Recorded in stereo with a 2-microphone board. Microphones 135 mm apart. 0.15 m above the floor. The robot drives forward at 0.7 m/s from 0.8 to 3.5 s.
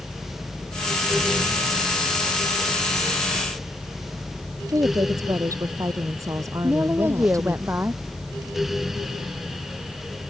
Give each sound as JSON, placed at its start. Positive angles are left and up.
{"t": 4.7, "sound": "a woman speaking", "side_deg": -25}
{"t": 6.6, "sound": "a woman speaking", "side_deg": -15}